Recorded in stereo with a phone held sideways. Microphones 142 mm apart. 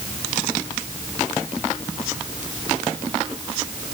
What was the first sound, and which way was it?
Only background noise.